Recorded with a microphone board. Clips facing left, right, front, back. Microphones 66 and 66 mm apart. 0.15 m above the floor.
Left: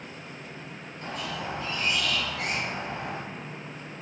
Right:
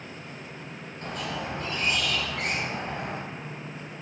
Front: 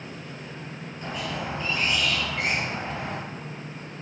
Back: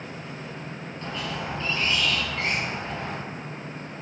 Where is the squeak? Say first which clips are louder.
Right 1 dB, front 1 dB; 70° right, 2.5 m.